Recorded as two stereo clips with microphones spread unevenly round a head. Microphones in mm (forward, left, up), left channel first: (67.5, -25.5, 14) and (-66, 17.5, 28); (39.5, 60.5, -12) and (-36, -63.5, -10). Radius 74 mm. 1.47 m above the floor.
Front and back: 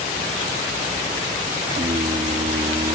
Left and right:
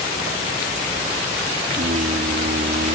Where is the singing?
145° right.